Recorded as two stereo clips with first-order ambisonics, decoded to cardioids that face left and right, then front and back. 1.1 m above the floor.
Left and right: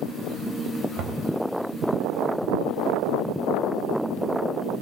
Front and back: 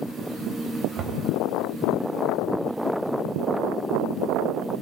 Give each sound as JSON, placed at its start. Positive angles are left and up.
{"t": 1.0, "sound": "knocking", "azimuth_deg": -130, "distance_m": 3.5}